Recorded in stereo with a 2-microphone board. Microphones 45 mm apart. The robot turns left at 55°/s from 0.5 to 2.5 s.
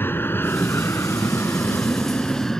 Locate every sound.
0.0 s an aircraft: 50° left (ahead or behind); by 2.6 s 10° left (ahead or behind)